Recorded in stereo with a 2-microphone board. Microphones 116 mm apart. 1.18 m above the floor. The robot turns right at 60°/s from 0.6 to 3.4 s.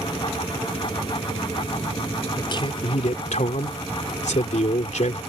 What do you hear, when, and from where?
2.4 s a man speaking: 30° left; by 5.2 s 95° left